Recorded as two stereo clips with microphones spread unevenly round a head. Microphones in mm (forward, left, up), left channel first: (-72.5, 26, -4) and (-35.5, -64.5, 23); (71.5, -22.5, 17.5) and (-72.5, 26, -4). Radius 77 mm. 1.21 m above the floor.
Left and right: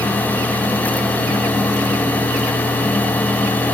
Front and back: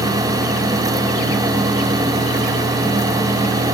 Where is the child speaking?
I don't hear a child speaking.